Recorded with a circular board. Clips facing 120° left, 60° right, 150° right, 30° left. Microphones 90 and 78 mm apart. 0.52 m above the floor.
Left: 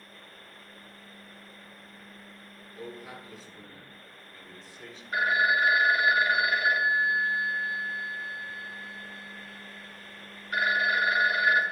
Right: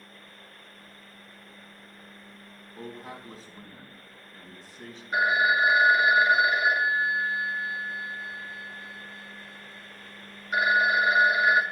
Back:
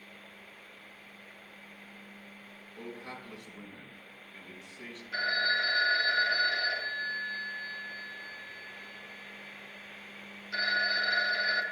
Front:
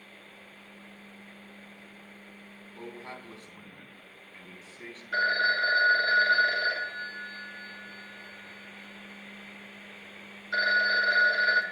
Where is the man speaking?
25° right, 4 m.